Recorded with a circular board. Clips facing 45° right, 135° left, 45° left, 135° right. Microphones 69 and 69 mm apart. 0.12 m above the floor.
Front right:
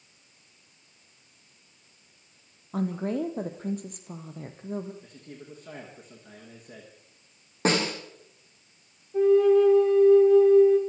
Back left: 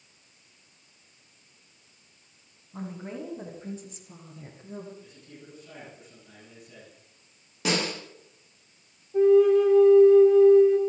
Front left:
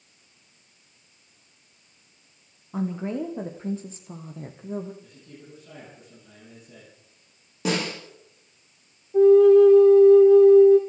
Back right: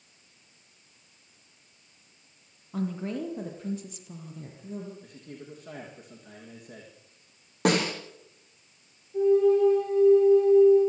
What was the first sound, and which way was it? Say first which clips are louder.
A woman speaking: front right 9 dB, front left 3 dB; 25° right.